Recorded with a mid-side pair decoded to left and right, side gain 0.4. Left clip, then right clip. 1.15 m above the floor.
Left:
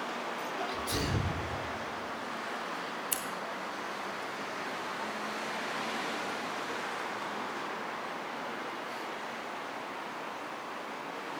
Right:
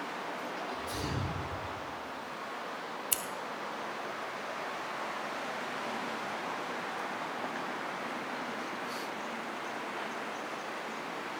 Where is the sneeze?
60° left, 3 m.